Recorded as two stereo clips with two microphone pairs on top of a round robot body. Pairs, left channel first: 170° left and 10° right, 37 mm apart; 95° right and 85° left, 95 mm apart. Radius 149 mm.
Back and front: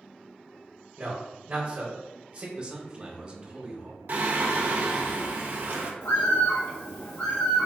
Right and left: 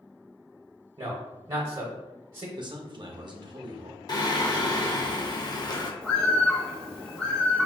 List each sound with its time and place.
1.0 s a man speaking: 40° left, 0.9 m
2.6 s a man speaking: 60° left, 0.8 m
4.1 s singing: 45° right, 0.6 m
6.0 s a bird: straight behind, 0.8 m